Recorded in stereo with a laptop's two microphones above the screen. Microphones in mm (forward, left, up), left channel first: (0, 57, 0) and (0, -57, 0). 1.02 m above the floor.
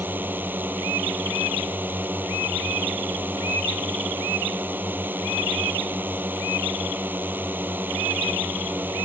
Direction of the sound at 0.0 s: 15° right (ahead or behind).